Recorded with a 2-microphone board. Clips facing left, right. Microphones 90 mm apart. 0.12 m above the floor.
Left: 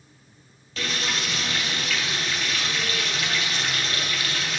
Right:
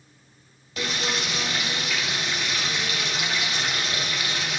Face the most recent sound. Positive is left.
turn(degrees=-15)  # may be behind; listen again after turning